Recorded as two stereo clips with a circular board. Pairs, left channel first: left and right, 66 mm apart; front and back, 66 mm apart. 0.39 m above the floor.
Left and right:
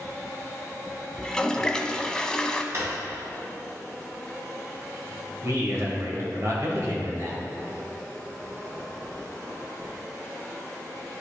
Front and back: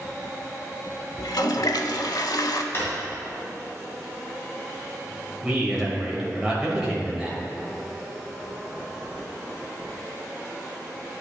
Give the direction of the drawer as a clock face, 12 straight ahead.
2 o'clock.